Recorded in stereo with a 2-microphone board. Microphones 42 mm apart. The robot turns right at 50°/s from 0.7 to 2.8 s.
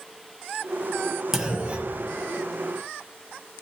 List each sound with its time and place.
1.3 s a clunk: 165° right, 0.9 m; by 2.1 s 125° right, 0.9 m